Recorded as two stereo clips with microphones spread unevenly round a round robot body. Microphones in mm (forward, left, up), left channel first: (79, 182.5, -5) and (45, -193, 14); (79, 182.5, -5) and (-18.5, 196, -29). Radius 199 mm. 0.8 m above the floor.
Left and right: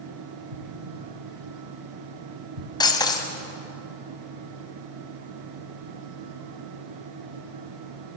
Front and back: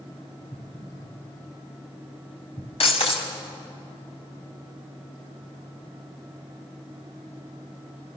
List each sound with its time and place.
0.5 s an explosion: 80° right, 1.2 m
2.8 s breaking glass: 5° left, 2.5 m